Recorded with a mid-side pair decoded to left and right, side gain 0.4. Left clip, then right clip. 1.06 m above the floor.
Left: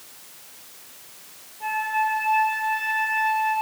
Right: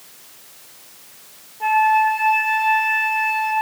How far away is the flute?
About 4 m.